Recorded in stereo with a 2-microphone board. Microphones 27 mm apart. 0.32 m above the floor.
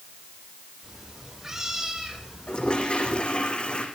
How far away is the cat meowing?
About 8 m.